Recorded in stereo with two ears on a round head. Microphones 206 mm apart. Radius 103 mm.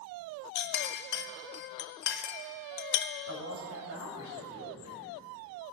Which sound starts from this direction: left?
A clink, at 0.6 s.